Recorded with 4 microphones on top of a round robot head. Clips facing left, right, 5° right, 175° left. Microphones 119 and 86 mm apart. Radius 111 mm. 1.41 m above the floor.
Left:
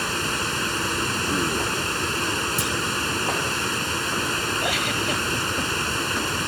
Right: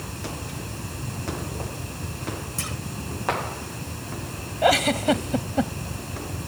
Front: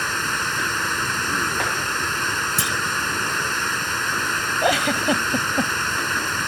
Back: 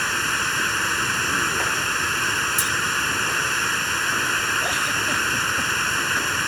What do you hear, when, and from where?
0.0 s running water: 80° left
2.6 s a clunk: 15° left
4.6 s a giggle: 40° right